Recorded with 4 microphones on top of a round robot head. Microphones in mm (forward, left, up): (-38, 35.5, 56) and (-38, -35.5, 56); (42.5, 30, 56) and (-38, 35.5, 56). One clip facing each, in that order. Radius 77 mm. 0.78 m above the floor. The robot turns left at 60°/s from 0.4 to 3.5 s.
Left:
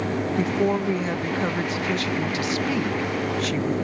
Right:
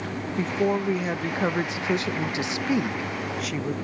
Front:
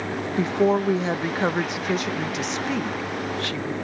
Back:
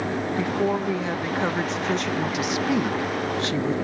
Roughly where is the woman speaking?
Ahead.